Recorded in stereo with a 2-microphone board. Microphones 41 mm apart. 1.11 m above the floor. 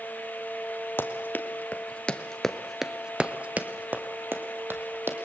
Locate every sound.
1.0 s running footsteps: 55° left (ahead or behind), 2 m; by 5.2 s 65° right (ahead or behind), 3 m